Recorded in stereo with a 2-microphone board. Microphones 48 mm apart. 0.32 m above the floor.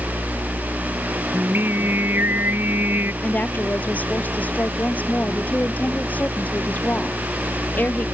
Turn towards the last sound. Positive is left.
turn(degrees=35)  # may be behind; listen again after turning